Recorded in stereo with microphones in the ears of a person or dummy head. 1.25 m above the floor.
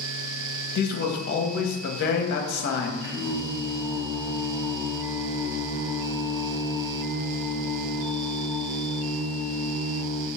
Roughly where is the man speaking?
Left.